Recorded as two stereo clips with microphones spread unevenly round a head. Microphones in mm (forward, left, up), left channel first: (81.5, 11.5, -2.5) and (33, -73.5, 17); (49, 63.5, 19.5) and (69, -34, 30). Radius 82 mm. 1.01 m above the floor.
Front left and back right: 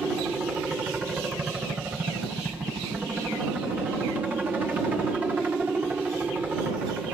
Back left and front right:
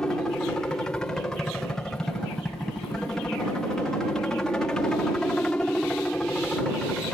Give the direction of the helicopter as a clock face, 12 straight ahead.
7 o'clock.